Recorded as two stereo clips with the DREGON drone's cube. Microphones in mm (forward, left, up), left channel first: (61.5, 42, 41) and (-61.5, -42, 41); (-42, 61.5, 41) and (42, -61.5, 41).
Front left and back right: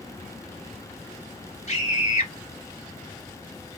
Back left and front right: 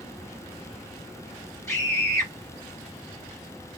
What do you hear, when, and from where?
1.7 s a scream: 60° left, 1.7 m